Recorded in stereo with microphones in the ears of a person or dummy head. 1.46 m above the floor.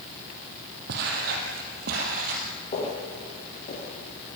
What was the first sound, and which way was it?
Footsteps, 65° right (ahead or behind).